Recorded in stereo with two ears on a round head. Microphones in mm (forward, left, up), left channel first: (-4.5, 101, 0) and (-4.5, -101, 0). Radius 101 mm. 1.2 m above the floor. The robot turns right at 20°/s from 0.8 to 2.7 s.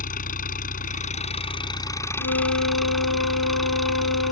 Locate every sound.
0.0 s an engine running: 140° left; by 4.3 s straight behind
2.2 s a flute: 65° left (ahead or behind); by 4.3 s 75° left (ahead or behind)